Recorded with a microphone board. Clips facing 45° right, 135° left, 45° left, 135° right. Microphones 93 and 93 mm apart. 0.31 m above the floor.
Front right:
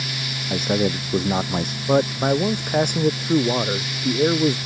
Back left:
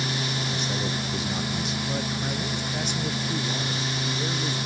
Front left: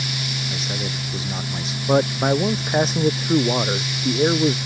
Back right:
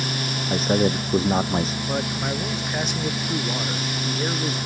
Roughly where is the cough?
I don't hear a cough.